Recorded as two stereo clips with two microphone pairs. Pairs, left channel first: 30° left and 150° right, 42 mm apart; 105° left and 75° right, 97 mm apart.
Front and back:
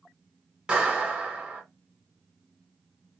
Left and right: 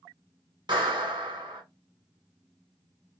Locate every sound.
0.7 s a clap: 85° right, 1.9 m